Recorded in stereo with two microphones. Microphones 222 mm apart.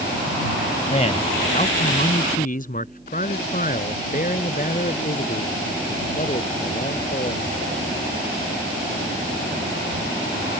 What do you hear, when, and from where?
0.9 s a man speaking: 25° left (ahead or behind); by 7.4 s 35° left (ahead or behind)